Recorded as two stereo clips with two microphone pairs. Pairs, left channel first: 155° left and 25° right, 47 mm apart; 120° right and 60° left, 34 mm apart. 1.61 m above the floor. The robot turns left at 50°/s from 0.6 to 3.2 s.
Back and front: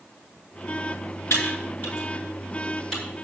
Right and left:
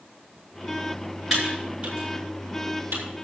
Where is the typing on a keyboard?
145° left, 7.5 m; by 3.0 s 60° left, 7.5 m.